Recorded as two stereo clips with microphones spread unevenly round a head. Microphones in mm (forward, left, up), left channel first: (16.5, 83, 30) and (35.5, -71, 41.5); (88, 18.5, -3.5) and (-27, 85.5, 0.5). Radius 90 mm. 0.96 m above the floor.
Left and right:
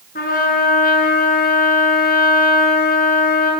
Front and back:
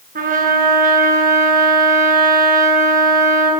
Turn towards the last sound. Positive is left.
turn(degrees=140)